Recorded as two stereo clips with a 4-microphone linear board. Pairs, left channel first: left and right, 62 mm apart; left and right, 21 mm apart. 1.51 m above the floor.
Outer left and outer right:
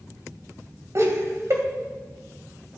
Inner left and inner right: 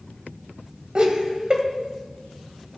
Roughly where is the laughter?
Right.